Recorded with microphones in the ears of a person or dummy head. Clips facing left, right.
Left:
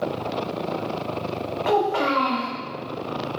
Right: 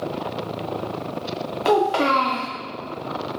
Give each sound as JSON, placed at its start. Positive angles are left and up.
{"t": 1.6, "sound": "a child speaking", "side_deg": -45, "distance_m": 0.5}